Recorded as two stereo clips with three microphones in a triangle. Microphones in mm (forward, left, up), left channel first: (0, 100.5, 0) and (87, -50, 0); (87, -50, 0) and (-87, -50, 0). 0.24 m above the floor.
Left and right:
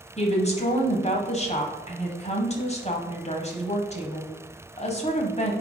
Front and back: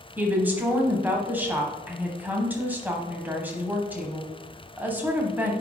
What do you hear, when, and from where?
0.2 s a woman speaking: 105° left, 1.2 m